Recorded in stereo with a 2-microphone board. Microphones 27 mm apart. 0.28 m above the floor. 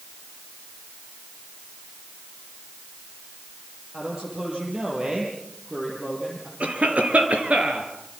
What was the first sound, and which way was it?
A man speaking, 30° right (ahead or behind).